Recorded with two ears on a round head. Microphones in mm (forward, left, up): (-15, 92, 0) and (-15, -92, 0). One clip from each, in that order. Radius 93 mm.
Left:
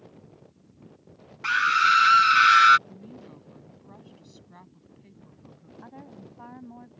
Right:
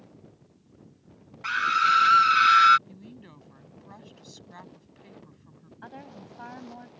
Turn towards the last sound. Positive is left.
turn(degrees=-65)  # may be behind; listen again after turning